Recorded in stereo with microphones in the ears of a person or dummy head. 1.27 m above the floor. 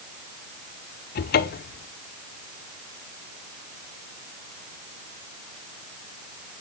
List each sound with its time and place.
1.1 s a cupboard door: 55° left (ahead or behind), 0.7 m